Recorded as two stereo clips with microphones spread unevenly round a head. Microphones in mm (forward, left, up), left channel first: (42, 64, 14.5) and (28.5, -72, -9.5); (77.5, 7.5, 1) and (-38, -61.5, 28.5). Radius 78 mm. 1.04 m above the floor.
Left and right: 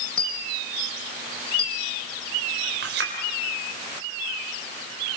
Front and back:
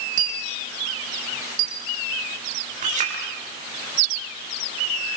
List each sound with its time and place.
0.2 s a dropped coin: 165° left, 2 m
2.8 s a clink: 110° right, 3.5 m